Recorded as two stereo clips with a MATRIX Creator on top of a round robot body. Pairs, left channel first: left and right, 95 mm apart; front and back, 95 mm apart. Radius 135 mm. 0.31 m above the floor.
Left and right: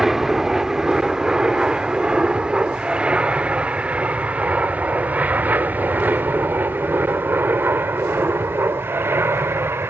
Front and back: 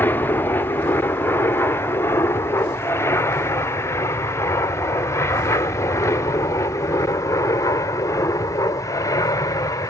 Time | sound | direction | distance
0.0 | an aircraft | 10° right | ?